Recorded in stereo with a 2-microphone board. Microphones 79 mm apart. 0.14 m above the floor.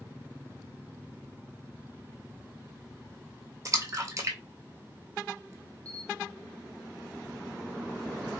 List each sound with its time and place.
3.6 s a splash: 40° right (ahead or behind), 0.7 m
5.8 s a camera shutter: 20° left (ahead or behind), 1.3 m